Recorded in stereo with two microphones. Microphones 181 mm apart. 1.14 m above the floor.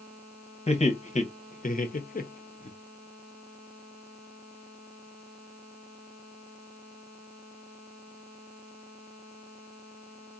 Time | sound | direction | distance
0.7 | laughter | 35° left (ahead or behind) | 1.1 m